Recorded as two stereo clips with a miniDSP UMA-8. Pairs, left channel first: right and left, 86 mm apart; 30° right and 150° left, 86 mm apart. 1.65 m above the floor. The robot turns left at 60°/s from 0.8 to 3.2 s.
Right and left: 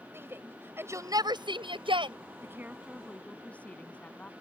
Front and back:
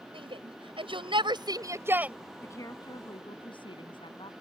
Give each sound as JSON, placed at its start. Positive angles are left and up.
{"t": 0.1, "sound": "a shout", "azimuth_deg": 155}
{"t": 2.4, "sound": "a woman speaking", "azimuth_deg": 30}